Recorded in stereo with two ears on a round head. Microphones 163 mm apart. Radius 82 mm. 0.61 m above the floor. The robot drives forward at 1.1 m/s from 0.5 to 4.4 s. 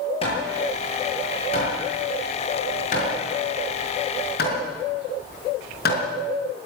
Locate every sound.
0.2 s hammering: 35° left (ahead or behind), 8.5 m; by 6.0 s 60° left (ahead or behind), 5.5 m